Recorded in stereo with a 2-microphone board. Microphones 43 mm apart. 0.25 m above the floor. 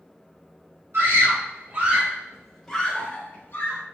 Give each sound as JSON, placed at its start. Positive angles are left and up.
{"t": 0.9, "sound": "a scream", "side_deg": -55, "distance_m": 1.5}